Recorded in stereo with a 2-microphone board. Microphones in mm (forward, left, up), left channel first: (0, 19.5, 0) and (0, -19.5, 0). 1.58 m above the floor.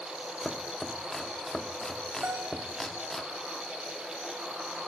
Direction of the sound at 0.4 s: 10° left (ahead or behind).